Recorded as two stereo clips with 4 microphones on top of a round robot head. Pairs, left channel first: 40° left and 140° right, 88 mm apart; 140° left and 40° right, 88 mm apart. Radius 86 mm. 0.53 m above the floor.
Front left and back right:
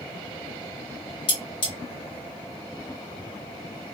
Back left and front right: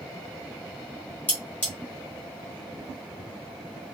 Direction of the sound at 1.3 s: 70° left.